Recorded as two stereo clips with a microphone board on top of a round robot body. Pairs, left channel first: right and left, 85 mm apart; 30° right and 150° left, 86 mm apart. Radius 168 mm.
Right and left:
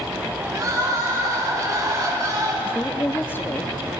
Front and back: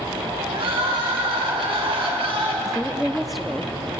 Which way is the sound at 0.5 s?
140° left.